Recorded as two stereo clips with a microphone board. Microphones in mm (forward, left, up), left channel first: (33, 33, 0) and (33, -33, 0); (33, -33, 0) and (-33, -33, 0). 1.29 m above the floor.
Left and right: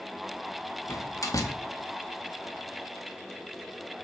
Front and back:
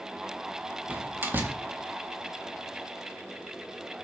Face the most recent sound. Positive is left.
turn(degrees=120)